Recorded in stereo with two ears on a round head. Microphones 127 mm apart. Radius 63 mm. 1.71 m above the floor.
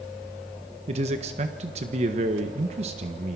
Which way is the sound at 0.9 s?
45° right (ahead or behind).